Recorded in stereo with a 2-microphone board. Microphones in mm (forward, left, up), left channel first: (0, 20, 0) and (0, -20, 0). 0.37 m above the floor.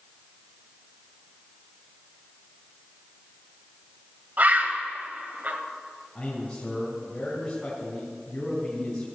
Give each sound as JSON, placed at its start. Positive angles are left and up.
{"t": 4.4, "sound": "a bird", "side_deg": -50, "distance_m": 1.3}
{"t": 6.2, "sound": "a man speaking", "side_deg": 20, "distance_m": 3.5}